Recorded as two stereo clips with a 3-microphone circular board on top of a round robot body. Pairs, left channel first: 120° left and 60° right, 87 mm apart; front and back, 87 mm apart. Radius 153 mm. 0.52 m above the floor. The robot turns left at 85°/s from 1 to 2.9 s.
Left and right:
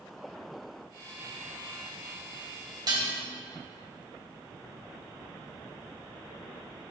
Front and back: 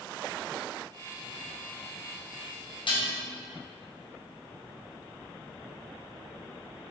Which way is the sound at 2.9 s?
15° right.